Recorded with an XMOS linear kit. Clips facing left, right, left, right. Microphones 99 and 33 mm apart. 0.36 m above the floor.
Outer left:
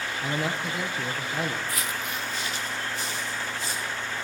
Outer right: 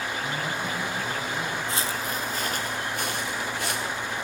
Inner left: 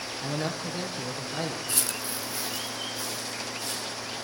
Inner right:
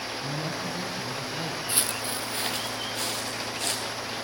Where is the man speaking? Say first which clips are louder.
Outer left 1 dB, inner left 3 dB; 65° left (ahead or behind), 6 m.